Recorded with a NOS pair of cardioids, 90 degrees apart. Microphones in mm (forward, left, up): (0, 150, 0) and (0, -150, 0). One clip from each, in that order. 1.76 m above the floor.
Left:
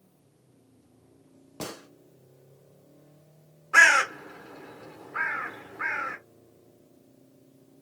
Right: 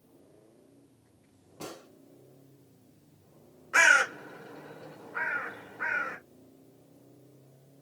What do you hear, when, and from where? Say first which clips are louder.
1.6 s a gunshot: left 5 dB; 70° left, 1.3 m
3.7 s a bird: left 3 dB; 25° left, 1.4 m